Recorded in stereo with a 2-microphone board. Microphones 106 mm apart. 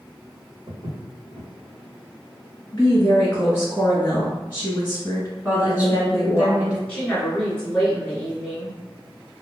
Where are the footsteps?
80° right, 1.0 m.